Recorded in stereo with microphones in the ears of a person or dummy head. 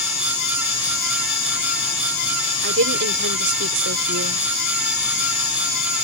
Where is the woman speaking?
70° right (ahead or behind).